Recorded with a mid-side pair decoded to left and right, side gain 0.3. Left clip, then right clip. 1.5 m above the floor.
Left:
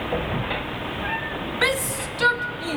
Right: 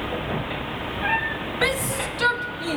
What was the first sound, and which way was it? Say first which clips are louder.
A shout: left 1 dB; 25° left.